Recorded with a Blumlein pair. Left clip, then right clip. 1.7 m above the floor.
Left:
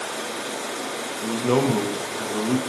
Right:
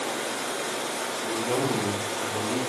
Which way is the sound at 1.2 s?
65° left.